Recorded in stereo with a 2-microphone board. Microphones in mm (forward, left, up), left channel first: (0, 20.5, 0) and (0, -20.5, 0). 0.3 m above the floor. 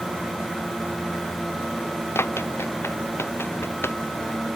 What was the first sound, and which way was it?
Running footsteps, 85° left.